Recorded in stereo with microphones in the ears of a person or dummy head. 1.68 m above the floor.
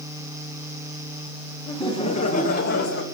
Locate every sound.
1.7 s laughter: 20° left (ahead or behind), 1.6 m; by 3.0 s 60° left (ahead or behind), 1.4 m